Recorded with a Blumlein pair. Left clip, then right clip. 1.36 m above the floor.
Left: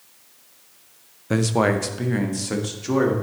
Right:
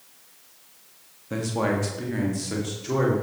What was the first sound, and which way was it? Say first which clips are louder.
A man speaking: left 5 dB; 45° left.